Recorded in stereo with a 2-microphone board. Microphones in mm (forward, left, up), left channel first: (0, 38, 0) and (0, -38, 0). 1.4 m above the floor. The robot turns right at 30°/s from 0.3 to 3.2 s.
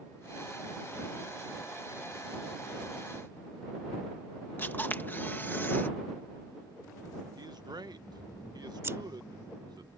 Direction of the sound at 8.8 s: 35° right (ahead or behind).